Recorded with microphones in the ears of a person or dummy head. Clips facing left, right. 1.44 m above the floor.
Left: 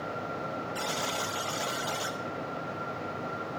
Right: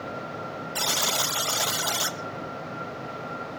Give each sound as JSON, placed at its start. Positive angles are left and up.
{"t": 0.8, "sound": "a buzzer", "side_deg": -70, "distance_m": 0.8}